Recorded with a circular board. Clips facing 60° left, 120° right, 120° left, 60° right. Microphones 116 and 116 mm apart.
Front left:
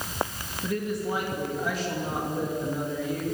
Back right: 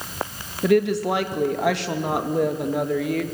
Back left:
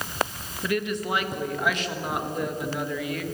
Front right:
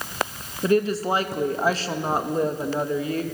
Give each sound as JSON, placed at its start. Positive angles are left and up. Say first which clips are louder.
{"t": 0.6, "sound": "a woman speaking", "louder": "back right 11 dB, front right 7 dB", "azimuth_deg": -115, "distance_m": 2.0}